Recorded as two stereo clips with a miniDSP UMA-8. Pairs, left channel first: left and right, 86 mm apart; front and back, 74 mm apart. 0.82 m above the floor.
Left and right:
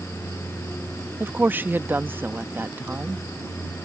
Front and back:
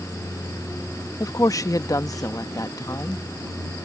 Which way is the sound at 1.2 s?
30° right.